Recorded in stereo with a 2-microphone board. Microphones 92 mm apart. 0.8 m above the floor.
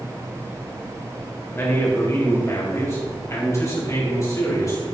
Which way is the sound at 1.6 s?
25° left (ahead or behind).